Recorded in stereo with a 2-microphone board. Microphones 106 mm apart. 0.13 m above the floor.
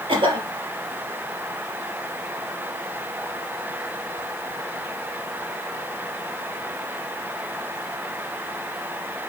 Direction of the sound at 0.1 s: 55° right (ahead or behind).